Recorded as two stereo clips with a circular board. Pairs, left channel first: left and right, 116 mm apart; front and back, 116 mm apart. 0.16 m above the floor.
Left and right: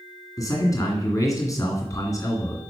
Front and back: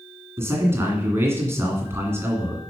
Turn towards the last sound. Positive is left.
turn(degrees=125)